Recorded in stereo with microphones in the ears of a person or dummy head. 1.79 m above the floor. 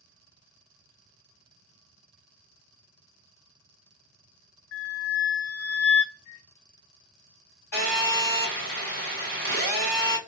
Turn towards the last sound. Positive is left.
turn(degrees=40)  # may be behind; listen again after turning